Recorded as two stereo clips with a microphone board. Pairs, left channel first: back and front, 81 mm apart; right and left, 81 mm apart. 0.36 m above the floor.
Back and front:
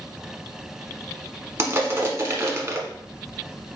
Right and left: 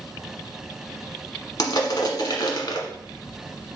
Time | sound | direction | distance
1.6 | crushing | 55° right | 0.9 m